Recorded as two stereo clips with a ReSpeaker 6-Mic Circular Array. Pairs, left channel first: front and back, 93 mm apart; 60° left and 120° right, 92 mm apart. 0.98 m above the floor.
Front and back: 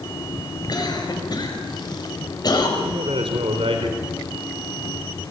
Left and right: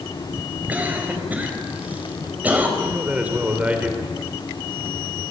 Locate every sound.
0.7 s a cough: 45° right, 5.5 m
2.8 s a man speaking: 165° left, 3 m